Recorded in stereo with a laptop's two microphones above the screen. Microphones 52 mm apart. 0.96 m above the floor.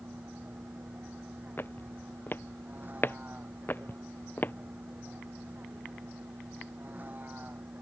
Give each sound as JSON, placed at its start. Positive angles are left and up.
{"t": 0.0, "sound": "a vehicle", "side_deg": -35}
{"t": 1.6, "sound": "footsteps", "side_deg": 45}